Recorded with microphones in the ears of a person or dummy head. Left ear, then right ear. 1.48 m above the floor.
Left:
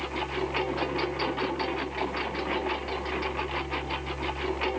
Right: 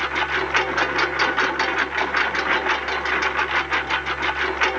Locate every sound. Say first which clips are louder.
0.0 s a lawn mower: right 9 dB; 45° right (ahead or behind)